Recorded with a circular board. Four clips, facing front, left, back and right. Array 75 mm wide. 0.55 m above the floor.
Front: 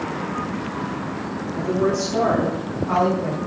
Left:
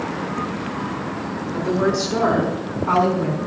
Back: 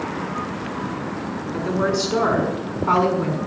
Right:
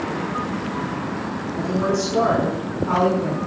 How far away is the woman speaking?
About 7 m.